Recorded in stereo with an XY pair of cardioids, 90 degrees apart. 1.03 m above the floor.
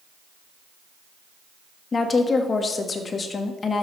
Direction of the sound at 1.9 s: 45° left.